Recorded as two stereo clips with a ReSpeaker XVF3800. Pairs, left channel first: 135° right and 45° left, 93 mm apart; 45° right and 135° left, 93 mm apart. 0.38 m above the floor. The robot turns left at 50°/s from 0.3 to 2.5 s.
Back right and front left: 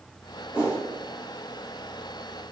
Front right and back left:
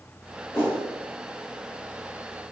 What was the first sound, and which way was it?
A whoosh, 15° right.